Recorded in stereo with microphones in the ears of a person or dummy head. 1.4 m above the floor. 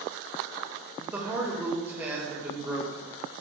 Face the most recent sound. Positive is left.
turn(degrees=-10)  # may be behind; listen again after turning